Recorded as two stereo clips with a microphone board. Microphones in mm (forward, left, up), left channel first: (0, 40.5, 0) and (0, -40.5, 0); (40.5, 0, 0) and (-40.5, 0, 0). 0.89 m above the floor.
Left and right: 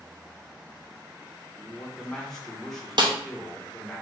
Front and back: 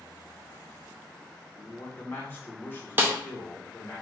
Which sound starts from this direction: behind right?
A snare drum, at 3.0 s.